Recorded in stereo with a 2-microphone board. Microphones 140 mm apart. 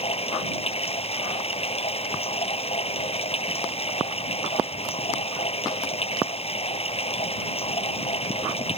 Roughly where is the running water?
Left.